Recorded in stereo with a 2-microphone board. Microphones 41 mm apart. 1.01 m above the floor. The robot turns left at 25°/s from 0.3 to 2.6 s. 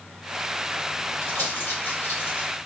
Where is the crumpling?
85° left, 1.9 m; by 2.5 s 60° left (ahead or behind), 1.9 m.